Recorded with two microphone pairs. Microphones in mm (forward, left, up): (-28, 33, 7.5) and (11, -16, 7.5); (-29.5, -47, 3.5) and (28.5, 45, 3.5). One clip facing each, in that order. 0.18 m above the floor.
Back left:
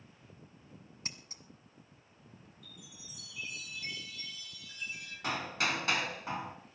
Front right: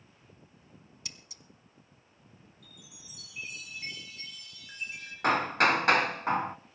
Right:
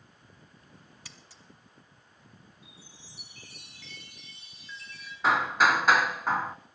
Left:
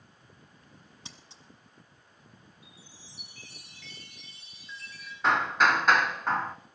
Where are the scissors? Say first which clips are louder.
Back left 3 dB, left 2 dB; 110° left, 1.2 m.